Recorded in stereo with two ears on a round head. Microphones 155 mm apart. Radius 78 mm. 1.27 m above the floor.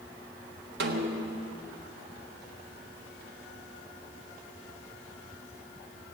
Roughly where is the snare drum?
Right.